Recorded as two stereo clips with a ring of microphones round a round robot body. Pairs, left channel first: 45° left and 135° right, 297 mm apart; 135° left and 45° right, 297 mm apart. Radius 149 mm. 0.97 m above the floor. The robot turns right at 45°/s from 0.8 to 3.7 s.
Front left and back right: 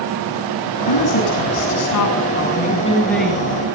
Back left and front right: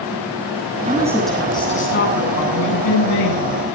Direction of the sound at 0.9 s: 25° left.